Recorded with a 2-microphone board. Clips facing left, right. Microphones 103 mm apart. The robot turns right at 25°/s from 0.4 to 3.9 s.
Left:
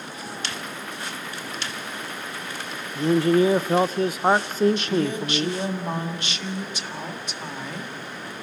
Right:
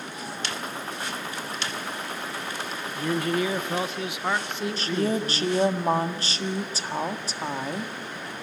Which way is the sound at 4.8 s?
35° right (ahead or behind).